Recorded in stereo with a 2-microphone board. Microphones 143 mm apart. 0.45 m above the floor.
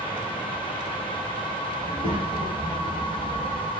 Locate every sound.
1.8 s a child speaking: 40° right (ahead or behind), 1.7 m